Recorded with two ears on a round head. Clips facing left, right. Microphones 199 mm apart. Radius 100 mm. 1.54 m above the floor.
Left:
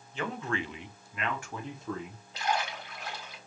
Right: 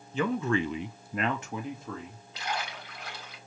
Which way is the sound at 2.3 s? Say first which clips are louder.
Left 4 dB; 50° left (ahead or behind).